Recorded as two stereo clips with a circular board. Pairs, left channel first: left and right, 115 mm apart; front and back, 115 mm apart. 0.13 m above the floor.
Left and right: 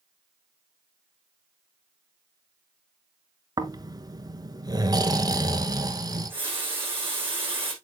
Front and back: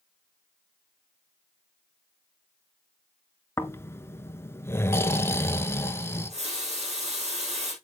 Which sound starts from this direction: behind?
A running tap, at 6.1 s.